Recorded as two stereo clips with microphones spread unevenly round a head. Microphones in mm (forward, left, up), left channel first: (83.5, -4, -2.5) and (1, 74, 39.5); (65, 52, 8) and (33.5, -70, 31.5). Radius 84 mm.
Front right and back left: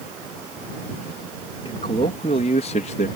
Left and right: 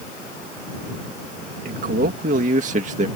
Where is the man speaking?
105° right; by 3.1 s 85° right.